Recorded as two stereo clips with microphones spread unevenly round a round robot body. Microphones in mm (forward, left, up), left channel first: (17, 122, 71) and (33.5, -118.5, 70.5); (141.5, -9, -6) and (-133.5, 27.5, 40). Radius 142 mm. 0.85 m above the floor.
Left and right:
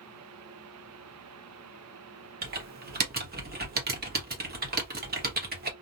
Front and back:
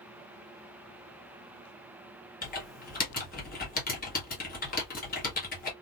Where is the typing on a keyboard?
45° right, 1.0 m.